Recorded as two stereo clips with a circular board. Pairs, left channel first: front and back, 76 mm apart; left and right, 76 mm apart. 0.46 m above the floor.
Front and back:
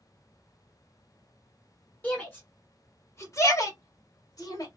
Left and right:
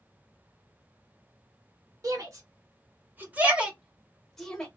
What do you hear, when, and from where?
2.0 s a shout: 65° right, 1.4 m; by 4.7 s 15° left, 1.2 m